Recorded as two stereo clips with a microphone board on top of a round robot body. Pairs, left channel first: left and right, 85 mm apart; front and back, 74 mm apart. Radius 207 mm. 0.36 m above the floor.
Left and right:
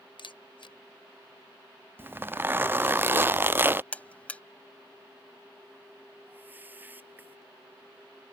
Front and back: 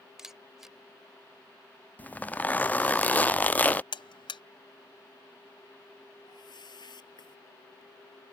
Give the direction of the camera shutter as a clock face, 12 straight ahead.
9 o'clock.